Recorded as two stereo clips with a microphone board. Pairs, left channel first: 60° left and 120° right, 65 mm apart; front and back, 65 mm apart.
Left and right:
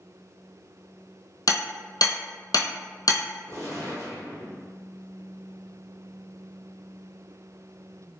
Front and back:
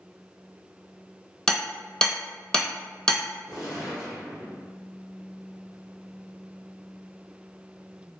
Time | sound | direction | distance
1.5 | hammering | 75° left | 0.7 m
3.5 | a gunshot | 95° right | 1.6 m